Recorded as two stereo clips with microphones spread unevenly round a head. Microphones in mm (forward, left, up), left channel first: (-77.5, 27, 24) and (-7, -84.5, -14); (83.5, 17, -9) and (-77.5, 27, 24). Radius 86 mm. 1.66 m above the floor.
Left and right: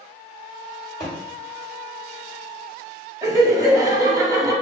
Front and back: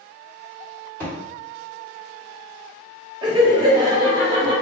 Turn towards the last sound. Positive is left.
turn(degrees=-130)